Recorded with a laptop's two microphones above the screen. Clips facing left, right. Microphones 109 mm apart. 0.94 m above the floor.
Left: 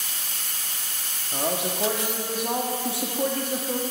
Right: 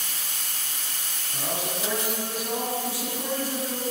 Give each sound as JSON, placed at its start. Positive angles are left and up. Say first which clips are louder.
{"t": 1.3, "sound": "a man speaking", "louder": "left 4 dB", "side_deg": 55, "distance_m": 1.3}